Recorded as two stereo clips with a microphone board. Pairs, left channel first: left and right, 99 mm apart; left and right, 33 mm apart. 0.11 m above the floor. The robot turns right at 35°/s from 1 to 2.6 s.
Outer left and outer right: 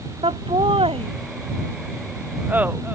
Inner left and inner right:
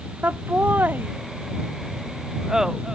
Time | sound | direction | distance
0.2 | laughter | 70° right (ahead or behind) | ?